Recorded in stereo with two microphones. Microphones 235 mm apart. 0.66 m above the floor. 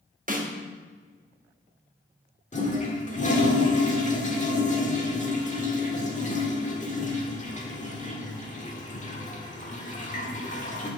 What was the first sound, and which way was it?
A snare drum, 35° right (ahead or behind).